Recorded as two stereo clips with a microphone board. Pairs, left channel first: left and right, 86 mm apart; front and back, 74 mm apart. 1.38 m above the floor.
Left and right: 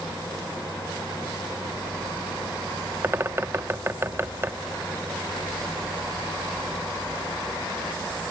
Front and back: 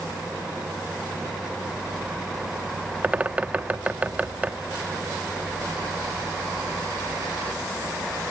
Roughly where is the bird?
Behind right.